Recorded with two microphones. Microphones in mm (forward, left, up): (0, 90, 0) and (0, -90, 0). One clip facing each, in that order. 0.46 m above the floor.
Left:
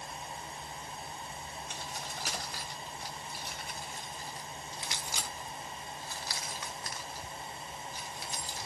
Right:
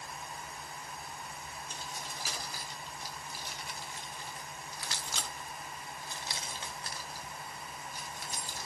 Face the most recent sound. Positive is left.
turn(degrees=-50)  # may be behind; listen again after turning